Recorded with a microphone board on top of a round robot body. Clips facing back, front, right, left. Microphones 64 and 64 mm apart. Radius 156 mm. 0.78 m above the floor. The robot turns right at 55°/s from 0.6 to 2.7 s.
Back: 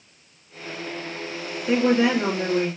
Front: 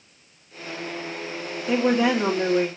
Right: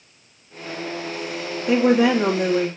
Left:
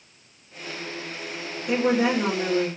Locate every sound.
1.7 s a woman speaking: 115° right, 2.5 m; by 2.7 s 55° right, 2.5 m